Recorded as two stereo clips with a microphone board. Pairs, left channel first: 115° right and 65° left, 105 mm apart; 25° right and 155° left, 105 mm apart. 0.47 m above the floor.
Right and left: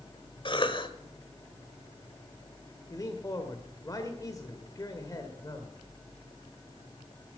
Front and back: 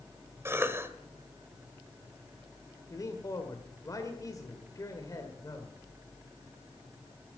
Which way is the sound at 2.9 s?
70° right.